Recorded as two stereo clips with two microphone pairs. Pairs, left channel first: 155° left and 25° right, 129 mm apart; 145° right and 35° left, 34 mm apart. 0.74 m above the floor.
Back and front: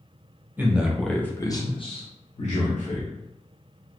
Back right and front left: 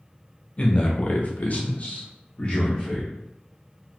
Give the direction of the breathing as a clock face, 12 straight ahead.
I don't hear breathing.